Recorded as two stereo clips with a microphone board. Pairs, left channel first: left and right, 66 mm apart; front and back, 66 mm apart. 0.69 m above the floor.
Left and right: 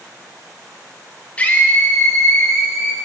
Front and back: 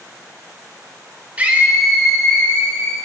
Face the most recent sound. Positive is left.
turn(degrees=60)